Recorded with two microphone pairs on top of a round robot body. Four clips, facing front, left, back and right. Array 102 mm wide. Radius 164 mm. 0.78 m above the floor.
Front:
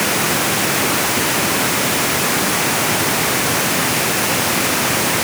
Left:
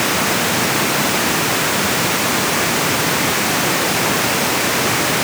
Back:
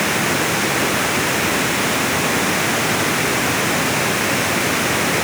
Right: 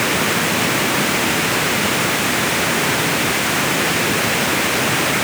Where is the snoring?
I don't hear snoring.